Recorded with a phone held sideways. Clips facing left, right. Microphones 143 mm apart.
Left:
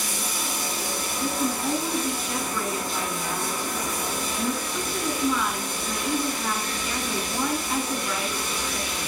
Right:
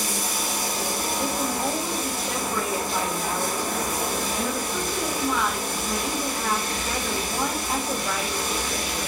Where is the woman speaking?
85° right, 3.5 m.